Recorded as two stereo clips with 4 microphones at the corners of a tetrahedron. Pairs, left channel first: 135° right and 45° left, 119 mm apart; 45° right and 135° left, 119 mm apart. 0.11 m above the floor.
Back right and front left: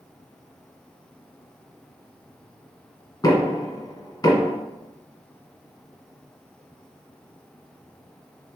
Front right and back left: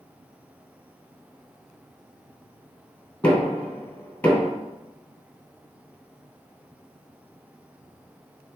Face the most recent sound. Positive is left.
turn(degrees=-115)